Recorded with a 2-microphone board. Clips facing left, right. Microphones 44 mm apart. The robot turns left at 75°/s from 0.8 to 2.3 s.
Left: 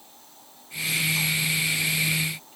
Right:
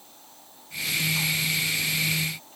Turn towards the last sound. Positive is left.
No sound to turn to.